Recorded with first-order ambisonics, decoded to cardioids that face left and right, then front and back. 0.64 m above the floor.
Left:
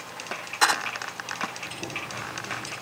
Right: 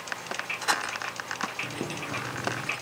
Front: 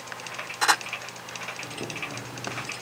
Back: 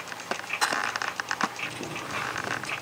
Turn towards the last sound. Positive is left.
turn(degrees=-90)